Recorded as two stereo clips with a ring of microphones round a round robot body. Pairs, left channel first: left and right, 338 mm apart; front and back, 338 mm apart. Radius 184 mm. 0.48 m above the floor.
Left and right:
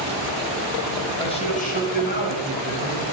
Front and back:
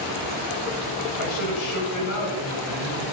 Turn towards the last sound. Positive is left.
turn(degrees=45)